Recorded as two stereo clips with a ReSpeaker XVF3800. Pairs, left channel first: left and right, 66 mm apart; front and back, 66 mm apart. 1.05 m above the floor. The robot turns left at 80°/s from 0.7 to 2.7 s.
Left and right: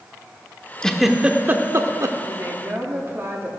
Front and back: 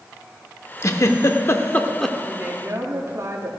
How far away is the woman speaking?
About 2 m.